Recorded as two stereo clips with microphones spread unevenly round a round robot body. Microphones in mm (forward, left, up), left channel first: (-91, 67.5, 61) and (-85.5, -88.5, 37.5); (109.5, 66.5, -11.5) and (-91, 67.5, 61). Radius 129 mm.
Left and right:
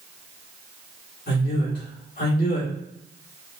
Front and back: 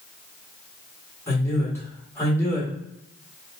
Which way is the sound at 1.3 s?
65° left.